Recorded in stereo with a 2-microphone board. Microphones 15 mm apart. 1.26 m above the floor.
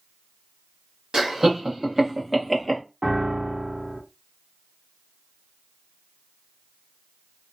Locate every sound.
1.1 s laughter: 60° right (ahead or behind), 1.4 m; by 2.8 s centre (ahead or behind), 1.1 m
3.0 s a piano: 45° right (ahead or behind), 0.8 m